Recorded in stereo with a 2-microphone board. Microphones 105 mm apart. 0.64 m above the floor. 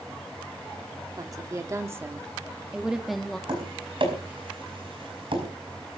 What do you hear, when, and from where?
1.2 s a woman speaking: 35° right (ahead or behind), 1.7 m; by 3.4 s 5° left (ahead or behind), 1.2 m
3.5 s tapping: 55° right (ahead or behind), 5 m